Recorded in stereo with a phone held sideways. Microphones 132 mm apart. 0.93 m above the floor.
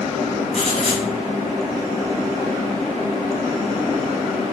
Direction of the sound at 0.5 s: 55° left (ahead or behind).